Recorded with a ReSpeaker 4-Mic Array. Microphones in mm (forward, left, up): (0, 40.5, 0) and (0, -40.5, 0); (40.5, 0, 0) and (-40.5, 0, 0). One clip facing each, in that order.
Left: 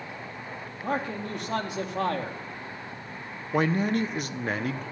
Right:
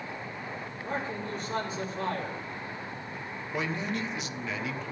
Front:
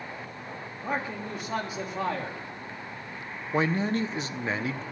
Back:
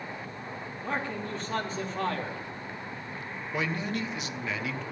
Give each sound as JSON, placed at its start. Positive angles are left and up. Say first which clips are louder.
{"t": 0.8, "sound": "a man speaking", "louder": "left 5 dB, front 1 dB", "azimuth_deg": 80, "distance_m": 3.0}
{"t": 3.5, "sound": "a man speaking", "louder": "left 8 dB, front 6 dB", "azimuth_deg": 50, "distance_m": 1.0}